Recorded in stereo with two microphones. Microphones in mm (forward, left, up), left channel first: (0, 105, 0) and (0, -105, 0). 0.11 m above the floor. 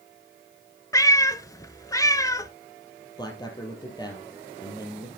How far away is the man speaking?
About 2.5 m.